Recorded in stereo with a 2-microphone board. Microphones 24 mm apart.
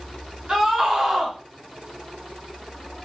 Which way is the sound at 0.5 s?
25° right (ahead or behind).